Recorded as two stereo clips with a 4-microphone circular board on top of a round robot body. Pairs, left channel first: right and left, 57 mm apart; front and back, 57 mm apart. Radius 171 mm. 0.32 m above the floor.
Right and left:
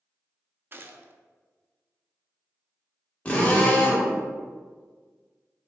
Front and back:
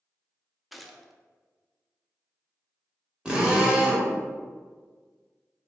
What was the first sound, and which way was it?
A gunshot, 90° left.